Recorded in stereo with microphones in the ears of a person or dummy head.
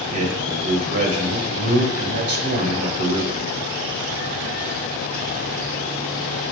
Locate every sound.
0.1 s a man speaking: 40° right (ahead or behind), 1.9 m